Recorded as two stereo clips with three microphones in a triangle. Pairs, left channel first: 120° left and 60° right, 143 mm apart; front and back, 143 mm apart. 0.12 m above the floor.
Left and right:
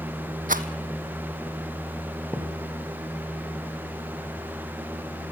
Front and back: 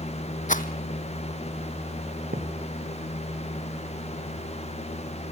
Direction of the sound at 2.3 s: 160° right.